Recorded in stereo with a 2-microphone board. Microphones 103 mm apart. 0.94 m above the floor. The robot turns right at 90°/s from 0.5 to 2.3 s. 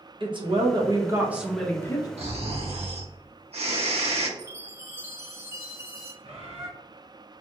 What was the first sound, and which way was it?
A woman speaking, 90° right.